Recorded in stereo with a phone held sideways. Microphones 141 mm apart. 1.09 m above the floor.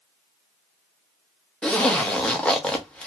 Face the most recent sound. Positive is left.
turn(degrees=5)  # may be behind; listen again after turning